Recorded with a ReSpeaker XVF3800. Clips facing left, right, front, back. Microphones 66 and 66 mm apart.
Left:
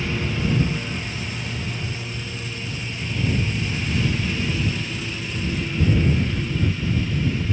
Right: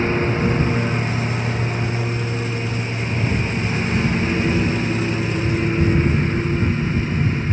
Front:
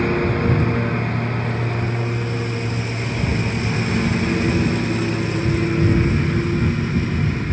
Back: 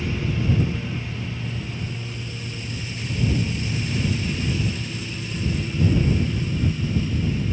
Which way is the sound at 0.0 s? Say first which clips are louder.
Right 7 dB, front 8 dB; 35° right.